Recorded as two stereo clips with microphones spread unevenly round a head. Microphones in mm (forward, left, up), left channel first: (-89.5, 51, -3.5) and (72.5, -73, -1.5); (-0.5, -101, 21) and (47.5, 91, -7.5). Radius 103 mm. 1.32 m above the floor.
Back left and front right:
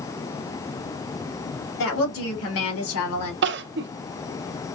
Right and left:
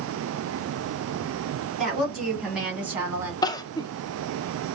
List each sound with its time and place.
1.8 s a woman speaking: 165° left, 3 m; by 3.3 s 155° left, 1.9 m
3.4 s crying: 45° right, 0.5 m